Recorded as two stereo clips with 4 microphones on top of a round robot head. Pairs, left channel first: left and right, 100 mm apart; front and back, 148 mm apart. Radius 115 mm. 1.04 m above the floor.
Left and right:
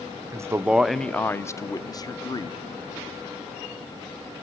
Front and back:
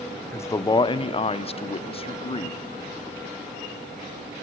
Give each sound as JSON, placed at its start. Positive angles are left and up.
{"t": 0.3, "sound": "a man speaking", "azimuth_deg": -60, "distance_m": 0.6}